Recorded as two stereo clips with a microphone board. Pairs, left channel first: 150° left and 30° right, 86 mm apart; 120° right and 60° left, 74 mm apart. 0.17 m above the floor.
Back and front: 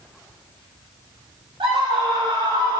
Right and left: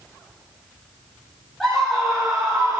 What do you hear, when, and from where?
1.6 s a scream: 30° right, 4.5 m; by 2.8 s 15° right, 3.5 m